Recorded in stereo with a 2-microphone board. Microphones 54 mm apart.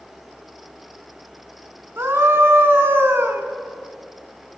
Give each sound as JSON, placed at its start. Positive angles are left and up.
{"t": 2.0, "sound": "a scream", "side_deg": -50, "distance_m": 3.0}